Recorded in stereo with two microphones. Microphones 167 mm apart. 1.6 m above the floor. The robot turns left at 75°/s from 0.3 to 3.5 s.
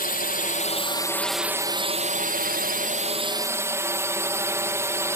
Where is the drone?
80° left; by 5.2 s 160° right.